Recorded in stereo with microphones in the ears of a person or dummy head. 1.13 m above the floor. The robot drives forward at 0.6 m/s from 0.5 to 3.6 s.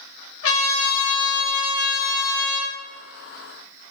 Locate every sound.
0.4 s a trumpet: 75° left (ahead or behind), 0.9 m; by 2.7 s 35° left (ahead or behind), 1.4 m